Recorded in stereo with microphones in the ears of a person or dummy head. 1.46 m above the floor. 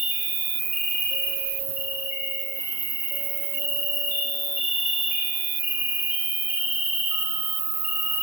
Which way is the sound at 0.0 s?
15° right (ahead or behind).